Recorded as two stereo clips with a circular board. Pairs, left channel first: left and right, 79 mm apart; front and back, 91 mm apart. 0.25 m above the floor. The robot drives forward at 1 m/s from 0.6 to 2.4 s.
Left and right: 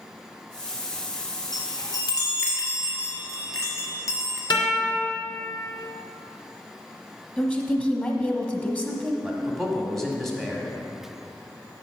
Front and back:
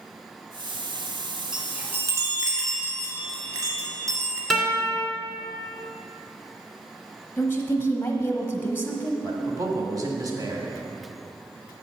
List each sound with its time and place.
1.5 s a chime: 100° left, 1.3 m; by 4.4 s 135° left, 1.7 m
4.5 s a guitar: 90° left, 2.5 m
7.4 s a woman speaking: 35° left, 1.2 m
9.2 s a man speaking: 175° left, 1.5 m